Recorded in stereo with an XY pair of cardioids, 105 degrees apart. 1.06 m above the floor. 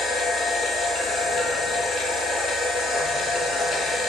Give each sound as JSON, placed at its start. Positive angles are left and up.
{"t": 0.0, "sound": "a machine running", "azimuth_deg": 70, "distance_m": 0.9}